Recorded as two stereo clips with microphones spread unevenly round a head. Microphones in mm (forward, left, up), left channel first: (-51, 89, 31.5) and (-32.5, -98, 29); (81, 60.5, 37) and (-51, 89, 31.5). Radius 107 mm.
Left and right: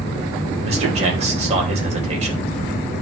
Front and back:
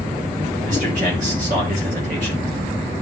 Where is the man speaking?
140° right, 3 m.